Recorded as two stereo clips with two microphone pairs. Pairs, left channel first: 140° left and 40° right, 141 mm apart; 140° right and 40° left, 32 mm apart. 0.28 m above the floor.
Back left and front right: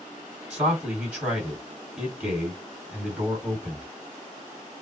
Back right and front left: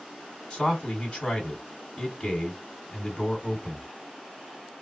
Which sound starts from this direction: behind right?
A man speaking, at 0.5 s.